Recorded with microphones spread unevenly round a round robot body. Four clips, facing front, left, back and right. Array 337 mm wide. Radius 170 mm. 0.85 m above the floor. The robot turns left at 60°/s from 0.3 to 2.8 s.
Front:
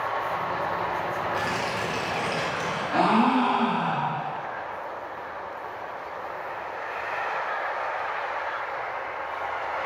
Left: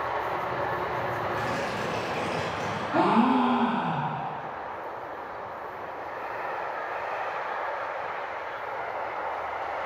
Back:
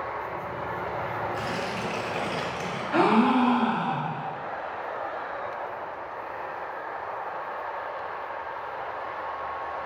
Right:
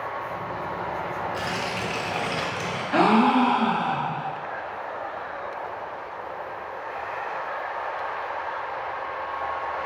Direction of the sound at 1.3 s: 20° right.